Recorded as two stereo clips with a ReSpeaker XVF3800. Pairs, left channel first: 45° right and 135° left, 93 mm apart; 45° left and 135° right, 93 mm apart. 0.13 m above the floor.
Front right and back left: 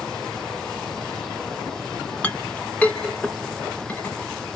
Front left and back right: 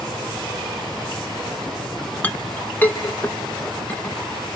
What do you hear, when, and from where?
2.2 s a clink: 10° left, 1.0 m